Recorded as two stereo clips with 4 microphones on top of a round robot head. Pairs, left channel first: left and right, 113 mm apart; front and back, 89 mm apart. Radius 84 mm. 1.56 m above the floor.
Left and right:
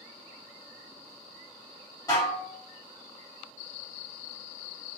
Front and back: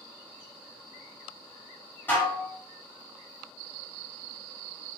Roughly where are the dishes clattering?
Ahead left.